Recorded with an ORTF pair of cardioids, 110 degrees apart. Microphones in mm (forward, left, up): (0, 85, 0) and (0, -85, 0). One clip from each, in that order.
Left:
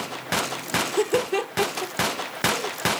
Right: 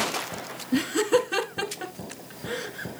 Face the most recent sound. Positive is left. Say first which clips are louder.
# even
turn(degrees=-65)